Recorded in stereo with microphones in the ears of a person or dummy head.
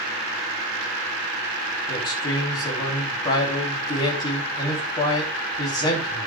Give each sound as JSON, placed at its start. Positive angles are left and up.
{"t": 1.9, "sound": "a man speaking", "side_deg": 25, "distance_m": 3.0}